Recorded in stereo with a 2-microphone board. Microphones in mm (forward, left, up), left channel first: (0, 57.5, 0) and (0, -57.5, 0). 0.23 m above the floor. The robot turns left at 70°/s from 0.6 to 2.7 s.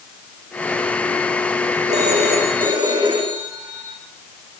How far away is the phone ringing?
About 8 m.